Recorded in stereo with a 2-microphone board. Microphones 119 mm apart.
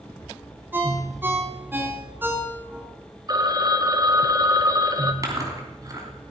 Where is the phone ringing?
35° right (ahead or behind), 1.2 m.